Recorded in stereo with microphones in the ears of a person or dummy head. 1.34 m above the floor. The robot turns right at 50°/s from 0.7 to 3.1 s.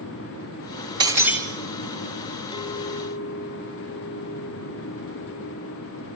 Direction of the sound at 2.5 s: 20° left (ahead or behind).